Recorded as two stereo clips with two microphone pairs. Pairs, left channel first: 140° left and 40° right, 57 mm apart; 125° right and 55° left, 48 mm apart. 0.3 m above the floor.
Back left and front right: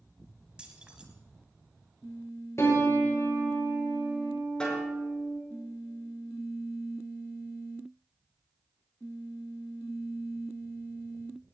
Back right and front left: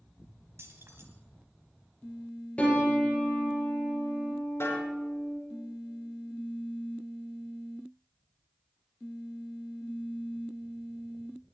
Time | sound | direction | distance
0.6 | keys jangling | 30° left | 3 m
2.6 | a piano | 175° left | 4 m
4.6 | a snare drum | 145° right | 5.5 m